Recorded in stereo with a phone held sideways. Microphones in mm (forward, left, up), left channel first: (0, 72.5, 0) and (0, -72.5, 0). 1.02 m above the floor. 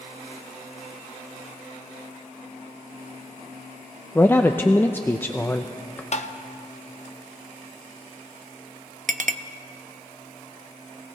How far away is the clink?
About 0.5 m.